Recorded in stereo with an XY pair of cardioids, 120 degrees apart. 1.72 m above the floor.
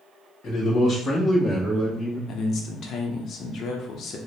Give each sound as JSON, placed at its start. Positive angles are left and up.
{"t": 0.4, "sound": "a man speaking", "azimuth_deg": 50, "distance_m": 1.0}
{"t": 2.3, "sound": "a man speaking", "azimuth_deg": 55, "distance_m": 0.8}